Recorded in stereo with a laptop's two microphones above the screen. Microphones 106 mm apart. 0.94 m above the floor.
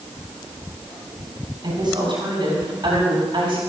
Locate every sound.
1.6 s a woman speaking: 40° right (ahead or behind), 7 m